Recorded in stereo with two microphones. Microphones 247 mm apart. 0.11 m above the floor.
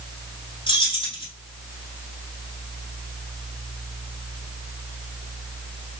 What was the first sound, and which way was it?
Keys jangling, 20° left (ahead or behind).